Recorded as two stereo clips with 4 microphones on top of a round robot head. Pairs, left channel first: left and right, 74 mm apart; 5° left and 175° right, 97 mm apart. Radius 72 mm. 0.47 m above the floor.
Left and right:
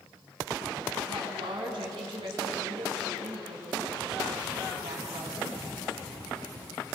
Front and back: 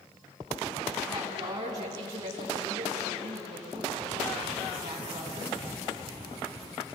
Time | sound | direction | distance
1.1 | a woman speaking | 120° right | 5.5 m